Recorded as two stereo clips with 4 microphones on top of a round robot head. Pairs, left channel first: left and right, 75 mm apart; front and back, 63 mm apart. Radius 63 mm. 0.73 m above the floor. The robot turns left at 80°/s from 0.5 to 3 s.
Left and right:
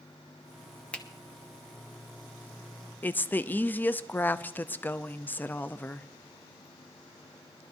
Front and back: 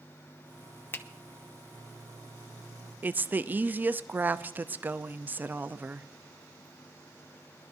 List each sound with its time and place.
0.9 s a finger snap: 25° left, 1.0 m; by 1.1 s 15° left, 1.0 m
3.0 s a woman speaking: 140° left, 0.6 m